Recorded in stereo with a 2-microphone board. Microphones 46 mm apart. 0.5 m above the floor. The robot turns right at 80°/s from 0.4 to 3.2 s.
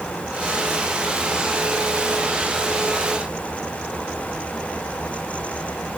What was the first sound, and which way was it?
Only background noise.